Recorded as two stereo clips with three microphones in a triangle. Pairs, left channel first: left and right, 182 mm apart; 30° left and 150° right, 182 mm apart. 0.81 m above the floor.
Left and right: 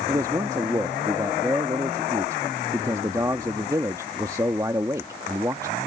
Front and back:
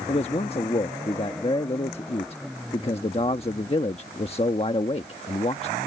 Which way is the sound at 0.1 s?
20° right.